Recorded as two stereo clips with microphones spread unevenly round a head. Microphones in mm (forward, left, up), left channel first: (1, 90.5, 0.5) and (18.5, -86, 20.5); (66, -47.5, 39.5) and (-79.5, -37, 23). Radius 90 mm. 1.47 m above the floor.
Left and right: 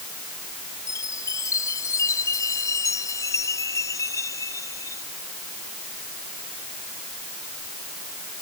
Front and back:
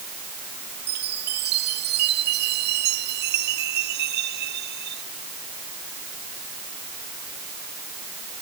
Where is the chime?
170° left.